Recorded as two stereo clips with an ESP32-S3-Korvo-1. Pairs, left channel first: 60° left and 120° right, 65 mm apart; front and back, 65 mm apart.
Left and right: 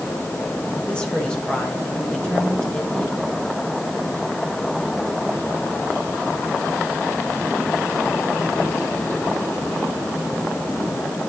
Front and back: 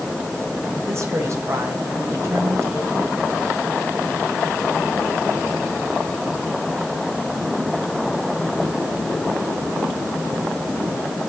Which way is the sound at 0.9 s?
135° left.